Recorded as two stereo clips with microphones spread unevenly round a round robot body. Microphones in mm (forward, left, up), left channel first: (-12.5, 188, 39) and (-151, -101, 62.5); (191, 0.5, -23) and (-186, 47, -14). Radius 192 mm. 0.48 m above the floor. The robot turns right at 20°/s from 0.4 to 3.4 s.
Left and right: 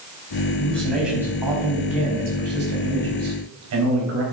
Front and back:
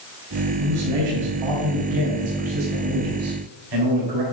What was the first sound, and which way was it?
A man speaking, 145° left.